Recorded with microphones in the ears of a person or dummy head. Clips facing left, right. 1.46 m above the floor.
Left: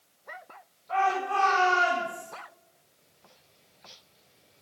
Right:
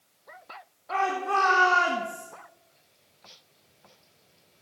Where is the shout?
85° right, 3 m; by 2.3 s 65° right (ahead or behind), 2 m.